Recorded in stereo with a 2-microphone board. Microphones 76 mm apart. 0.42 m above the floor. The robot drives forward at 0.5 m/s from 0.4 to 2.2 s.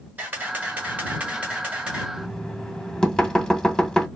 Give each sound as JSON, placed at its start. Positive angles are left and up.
{"t": 0.2, "sound": "a camera shutter", "side_deg": -25, "distance_m": 0.9}
{"t": 2.2, "sound": "knocking", "side_deg": 10, "distance_m": 0.6}